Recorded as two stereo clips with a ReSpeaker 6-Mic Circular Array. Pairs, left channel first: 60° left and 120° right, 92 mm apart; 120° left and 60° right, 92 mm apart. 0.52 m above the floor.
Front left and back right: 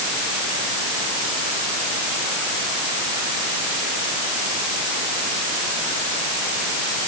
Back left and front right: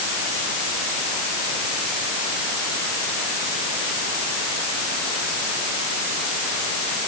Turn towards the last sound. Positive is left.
No sound to turn to.